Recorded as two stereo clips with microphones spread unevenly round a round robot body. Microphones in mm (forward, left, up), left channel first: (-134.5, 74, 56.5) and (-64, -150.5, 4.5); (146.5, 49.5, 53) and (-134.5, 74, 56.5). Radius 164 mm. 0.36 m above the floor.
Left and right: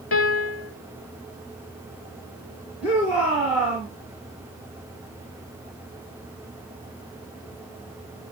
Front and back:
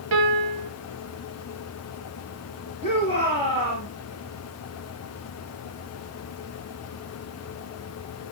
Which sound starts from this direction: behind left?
A piano, at 0.1 s.